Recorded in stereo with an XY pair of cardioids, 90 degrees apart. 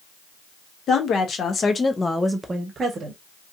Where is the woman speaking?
65° left, 1.1 m; by 3.2 s 65° right, 0.9 m.